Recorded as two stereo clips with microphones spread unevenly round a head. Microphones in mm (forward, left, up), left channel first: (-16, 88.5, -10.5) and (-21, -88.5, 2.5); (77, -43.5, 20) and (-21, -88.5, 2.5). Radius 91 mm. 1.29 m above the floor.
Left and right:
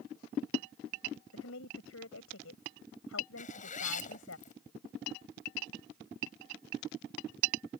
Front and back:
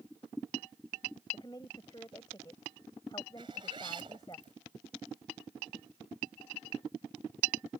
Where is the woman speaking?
95° left.